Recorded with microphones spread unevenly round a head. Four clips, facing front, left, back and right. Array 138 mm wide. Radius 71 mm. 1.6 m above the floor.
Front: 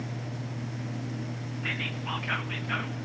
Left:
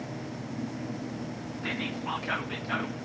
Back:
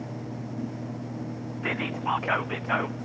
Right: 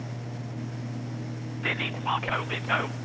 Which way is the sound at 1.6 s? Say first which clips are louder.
Right 3 dB, back 8 dB; 145° right.